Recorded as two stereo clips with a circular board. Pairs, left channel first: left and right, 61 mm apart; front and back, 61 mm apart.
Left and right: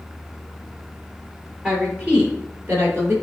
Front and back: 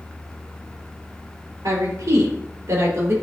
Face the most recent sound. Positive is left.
turn(degrees=-140)